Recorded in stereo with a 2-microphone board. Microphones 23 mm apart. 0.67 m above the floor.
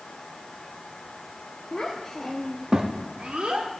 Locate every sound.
1.7 s a child speaking: 45° left (ahead or behind), 1.0 m; by 3.7 s 70° right (ahead or behind), 1.5 m